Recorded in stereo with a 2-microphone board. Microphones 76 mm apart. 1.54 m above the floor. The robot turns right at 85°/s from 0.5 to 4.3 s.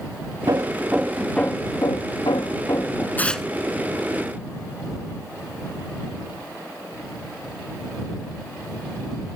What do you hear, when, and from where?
0.5 s hammering: 55° right; by 3.1 s 165° left
3.2 s tearing paper: 25° left (ahead or behind); by 3.5 s centre (ahead or behind)